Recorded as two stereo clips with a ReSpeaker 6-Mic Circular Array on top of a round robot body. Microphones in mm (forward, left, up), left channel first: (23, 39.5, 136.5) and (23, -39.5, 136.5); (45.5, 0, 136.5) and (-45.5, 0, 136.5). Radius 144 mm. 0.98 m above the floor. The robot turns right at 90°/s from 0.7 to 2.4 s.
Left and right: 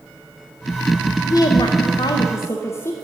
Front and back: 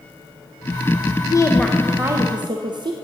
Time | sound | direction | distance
1.3 | a woman speaking | 45° left | 0.7 m